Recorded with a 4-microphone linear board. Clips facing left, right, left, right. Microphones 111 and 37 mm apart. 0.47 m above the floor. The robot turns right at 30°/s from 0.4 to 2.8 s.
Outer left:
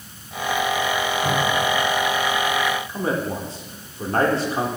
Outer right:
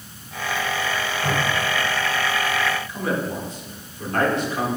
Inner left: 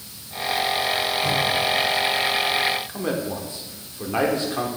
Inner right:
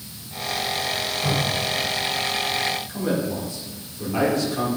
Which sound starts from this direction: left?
A man speaking, at 2.9 s.